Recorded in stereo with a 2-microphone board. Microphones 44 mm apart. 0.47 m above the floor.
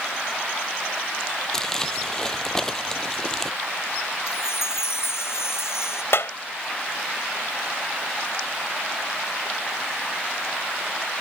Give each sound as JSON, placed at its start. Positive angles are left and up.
{"t": 1.5, "sound": "crumpling", "side_deg": 10}
{"t": 4.3, "sound": "a chime", "side_deg": 70}
{"t": 6.1, "sound": "a clap", "side_deg": 65}